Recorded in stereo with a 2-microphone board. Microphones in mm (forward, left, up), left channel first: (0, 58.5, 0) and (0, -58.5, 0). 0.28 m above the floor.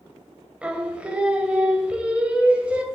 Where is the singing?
10° right (ahead or behind), 1.1 m.